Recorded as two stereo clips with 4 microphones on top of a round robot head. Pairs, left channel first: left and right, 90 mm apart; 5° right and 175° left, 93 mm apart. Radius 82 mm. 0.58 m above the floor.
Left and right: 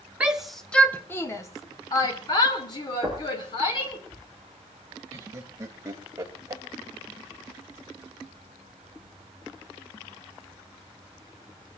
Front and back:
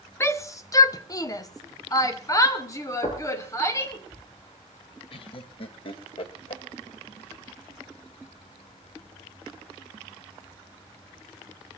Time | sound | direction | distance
0.2 | a shout | 30° right | 1.1 m
3.0 | knocking | 25° left | 7 m
5.1 | laughter | 30° right | 2 m